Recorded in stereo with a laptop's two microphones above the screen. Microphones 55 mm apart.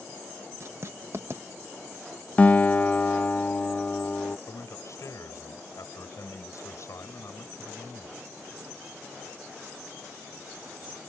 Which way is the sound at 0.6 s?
50° right (ahead or behind).